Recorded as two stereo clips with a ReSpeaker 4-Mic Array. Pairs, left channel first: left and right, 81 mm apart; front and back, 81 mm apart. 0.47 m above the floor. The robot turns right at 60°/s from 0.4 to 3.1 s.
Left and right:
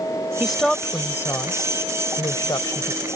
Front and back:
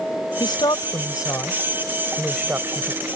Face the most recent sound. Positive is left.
turn(degrees=150)